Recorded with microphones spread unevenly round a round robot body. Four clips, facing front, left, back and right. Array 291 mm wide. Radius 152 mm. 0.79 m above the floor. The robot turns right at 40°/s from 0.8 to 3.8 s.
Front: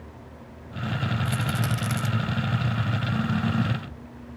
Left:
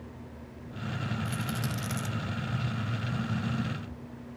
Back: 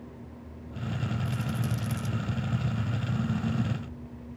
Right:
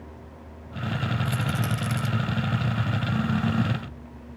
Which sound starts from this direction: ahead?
A rattle, at 1.2 s.